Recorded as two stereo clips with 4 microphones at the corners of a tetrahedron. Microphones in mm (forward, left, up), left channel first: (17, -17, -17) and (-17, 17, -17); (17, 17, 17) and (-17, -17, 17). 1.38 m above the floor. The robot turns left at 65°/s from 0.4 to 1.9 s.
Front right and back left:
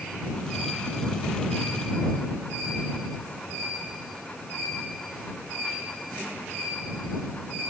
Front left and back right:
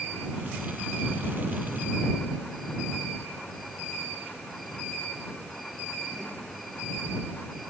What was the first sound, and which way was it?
Only background noise.